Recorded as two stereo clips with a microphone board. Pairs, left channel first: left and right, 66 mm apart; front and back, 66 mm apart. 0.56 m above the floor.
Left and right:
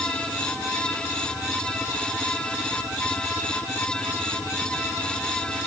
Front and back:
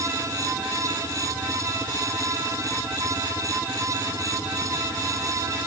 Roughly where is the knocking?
No knocking in this recording.